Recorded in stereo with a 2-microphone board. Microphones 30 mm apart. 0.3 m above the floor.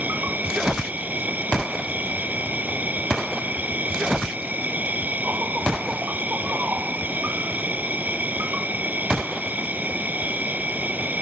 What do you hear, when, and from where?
0.0 s an insect: 75° right (ahead or behind)